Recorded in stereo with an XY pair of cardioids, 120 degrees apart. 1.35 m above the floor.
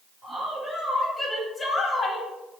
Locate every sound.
0.2 s a woman speaking: 20° right, 1.5 m; by 2.3 s 50° left, 1.3 m